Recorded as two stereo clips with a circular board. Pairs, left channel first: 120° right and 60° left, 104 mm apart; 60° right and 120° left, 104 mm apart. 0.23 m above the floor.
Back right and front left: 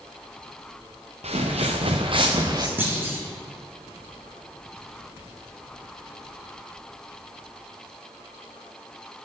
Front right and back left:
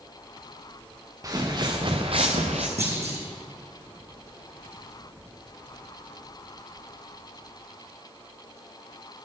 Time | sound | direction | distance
1.2 | footsteps | 60° left | 1.8 m
2.8 | a clunk | 130° left | 3 m